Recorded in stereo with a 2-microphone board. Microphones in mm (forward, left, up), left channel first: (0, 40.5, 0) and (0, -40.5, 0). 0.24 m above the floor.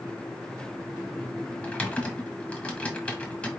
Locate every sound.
1.6 s typing on a keyboard: 15° left (ahead or behind), 1.0 m